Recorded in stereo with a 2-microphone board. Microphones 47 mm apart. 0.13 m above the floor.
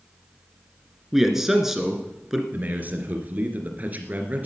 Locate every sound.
1.1 s a man speaking: 5° right (ahead or behind), 2 m
2.5 s a man speaking: 40° right (ahead or behind), 2.5 m